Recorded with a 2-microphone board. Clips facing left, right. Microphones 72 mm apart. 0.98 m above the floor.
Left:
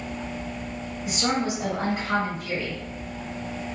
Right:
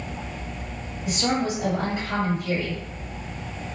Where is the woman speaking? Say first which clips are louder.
Right 1 dB; 65° left (ahead or behind), 1.9 m.